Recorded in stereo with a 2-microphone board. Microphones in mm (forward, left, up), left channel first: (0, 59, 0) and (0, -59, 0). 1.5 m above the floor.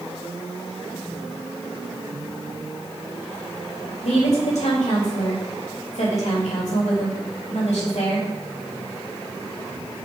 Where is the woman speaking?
85° left, 3.5 m.